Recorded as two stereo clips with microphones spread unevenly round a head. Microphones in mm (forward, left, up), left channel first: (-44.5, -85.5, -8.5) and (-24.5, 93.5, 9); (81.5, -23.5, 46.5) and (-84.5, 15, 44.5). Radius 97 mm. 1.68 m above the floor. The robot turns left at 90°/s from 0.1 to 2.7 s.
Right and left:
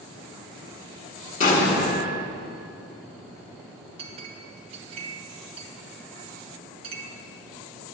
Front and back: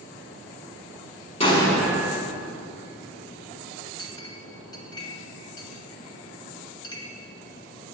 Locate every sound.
1.4 s an explosion: 60° right, 0.9 m; by 2.2 s 130° right, 0.9 m
4.0 s a clink: 45° left, 0.7 m